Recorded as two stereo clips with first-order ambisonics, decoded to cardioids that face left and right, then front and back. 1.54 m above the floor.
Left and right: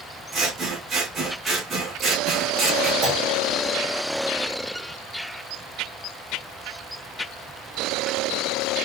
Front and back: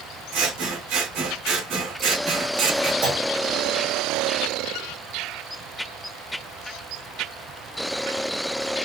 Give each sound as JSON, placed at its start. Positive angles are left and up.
{"t": 0.3, "sound": "scissors", "azimuth_deg": -150, "distance_m": 2.5}
{"t": 3.0, "sound": "a clunk", "azimuth_deg": -135, "distance_m": 3.0}